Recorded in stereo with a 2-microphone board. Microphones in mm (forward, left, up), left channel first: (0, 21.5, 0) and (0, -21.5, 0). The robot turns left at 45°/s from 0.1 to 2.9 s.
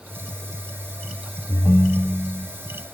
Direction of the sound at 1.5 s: 40° left.